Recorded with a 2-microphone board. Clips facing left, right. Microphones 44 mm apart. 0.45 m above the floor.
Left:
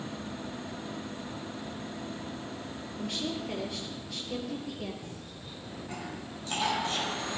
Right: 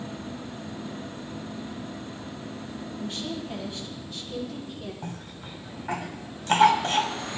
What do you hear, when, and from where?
3.0 s a woman speaking: 80° left, 8.5 m; by 4.9 s 75° left (ahead or behind), 8 m
5.0 s a cough: 55° right (ahead or behind), 3 m